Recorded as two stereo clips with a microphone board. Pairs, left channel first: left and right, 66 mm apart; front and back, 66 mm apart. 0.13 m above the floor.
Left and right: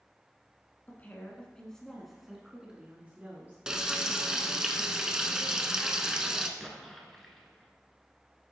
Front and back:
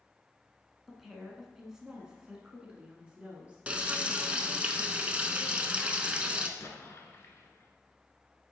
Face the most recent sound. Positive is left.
turn(degrees=5)